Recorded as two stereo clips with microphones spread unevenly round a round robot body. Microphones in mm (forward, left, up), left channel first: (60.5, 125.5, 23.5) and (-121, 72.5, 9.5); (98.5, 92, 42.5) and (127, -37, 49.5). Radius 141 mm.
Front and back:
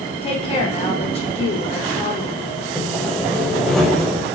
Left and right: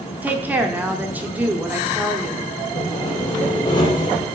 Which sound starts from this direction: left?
Sawing, at 2.8 s.